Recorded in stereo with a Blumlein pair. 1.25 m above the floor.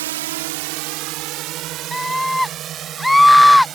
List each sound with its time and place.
0.0 s a drone: 60° right; by 3.8 s 25° right
1.9 s a scream: straight ahead